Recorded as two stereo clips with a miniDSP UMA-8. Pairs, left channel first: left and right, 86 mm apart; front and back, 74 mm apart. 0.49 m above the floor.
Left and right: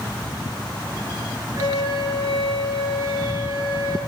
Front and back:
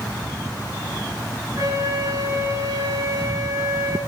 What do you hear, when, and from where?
1.6 s a flute: 120° right, 5 m